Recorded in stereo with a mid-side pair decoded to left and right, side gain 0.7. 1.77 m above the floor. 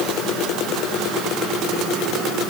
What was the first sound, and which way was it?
Only background noise.